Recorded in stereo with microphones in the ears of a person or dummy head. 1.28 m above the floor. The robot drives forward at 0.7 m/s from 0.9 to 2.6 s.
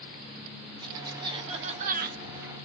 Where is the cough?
25° right (ahead or behind), 1.2 m; by 2.2 s 60° right (ahead or behind), 0.6 m.